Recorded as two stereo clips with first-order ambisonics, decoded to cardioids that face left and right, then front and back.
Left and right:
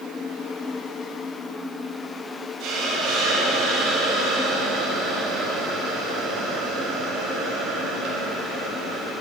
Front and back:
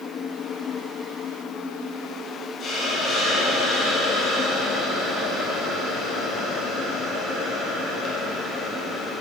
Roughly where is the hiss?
Ahead right.